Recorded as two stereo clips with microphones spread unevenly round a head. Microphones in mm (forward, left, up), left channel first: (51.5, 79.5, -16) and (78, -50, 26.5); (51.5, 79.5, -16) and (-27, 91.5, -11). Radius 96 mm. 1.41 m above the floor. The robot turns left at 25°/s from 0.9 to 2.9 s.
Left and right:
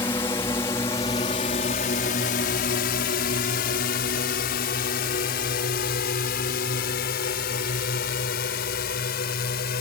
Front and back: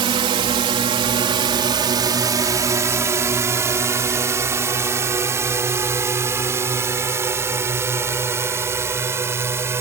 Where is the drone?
175° left; by 9.8 s 115° left.